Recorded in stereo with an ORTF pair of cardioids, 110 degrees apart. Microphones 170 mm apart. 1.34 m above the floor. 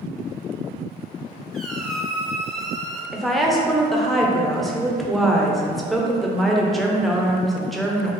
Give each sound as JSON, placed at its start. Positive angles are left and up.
{"t": 1.5, "sound": "a squeak", "azimuth_deg": 5, "distance_m": 0.7}
{"t": 3.1, "sound": "a woman speaking", "azimuth_deg": 0, "distance_m": 0.7}